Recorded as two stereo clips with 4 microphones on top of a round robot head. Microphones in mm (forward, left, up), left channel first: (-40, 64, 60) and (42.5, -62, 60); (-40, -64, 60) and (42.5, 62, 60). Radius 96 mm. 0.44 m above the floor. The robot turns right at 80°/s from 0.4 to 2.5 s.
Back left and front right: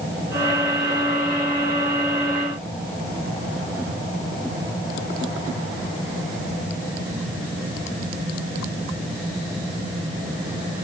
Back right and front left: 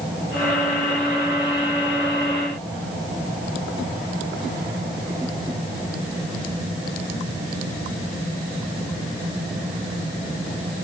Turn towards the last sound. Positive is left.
No sound to turn to.